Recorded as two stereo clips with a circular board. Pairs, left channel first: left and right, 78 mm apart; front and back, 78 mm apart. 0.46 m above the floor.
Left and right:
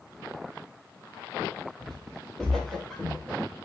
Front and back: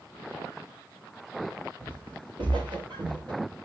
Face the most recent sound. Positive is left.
turn(degrees=175)